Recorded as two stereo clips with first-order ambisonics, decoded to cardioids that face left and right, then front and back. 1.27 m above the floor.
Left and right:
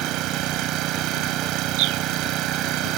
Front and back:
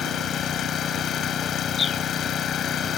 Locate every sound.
0.0 s an engine running: 55° right
1.8 s a bird: 65° right